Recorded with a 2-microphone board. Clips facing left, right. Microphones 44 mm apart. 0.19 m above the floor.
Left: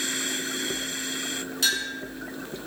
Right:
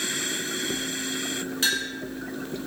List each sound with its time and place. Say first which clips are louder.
1.6 s a clink: even; 25° right (ahead or behind), 2.0 m